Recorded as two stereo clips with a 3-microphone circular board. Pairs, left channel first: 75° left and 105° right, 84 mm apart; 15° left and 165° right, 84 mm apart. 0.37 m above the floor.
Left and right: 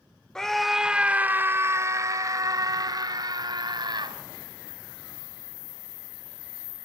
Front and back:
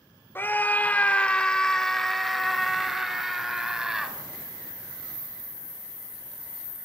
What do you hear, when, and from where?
0.3 s a scream: 5° left, 1.0 m; by 4.2 s 85° right, 2.5 m